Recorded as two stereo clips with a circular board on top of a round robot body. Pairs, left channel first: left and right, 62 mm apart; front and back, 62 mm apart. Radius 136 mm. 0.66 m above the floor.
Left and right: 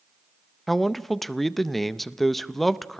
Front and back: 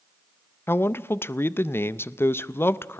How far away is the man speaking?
About 0.7 m.